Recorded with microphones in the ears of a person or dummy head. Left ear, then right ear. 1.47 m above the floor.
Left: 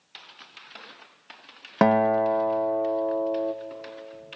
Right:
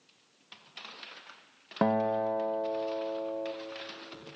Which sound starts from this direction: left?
A guitar, at 1.8 s.